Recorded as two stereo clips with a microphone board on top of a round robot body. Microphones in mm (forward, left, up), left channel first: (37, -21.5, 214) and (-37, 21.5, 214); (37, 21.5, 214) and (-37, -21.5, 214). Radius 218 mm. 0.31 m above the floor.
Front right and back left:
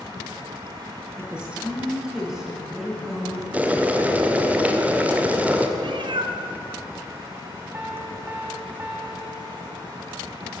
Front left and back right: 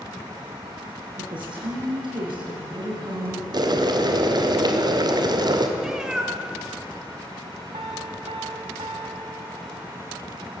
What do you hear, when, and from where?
1.2 s a woman speaking: 130° right, 8 m; by 3.4 s 115° right, 5 m
3.5 s boiling: 140° right, 2.5 m
5.8 s a cat meowing: 130° left, 1.8 m
7.7 s a piano: 140° right, 1.8 m